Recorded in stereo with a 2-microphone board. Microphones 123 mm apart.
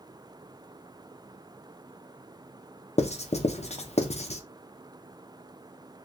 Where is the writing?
60° left (ahead or behind), 0.5 m.